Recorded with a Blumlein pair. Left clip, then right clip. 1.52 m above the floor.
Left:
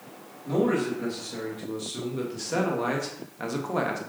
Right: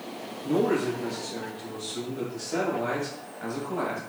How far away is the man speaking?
About 2.5 m.